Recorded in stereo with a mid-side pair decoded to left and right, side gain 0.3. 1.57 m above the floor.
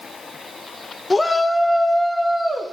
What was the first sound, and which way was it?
A shout, 25° left.